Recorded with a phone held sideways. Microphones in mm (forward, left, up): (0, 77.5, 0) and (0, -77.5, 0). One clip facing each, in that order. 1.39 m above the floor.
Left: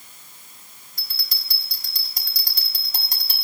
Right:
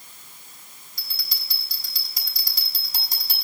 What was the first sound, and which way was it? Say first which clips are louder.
A bell: left 2 dB; 60° left (ahead or behind).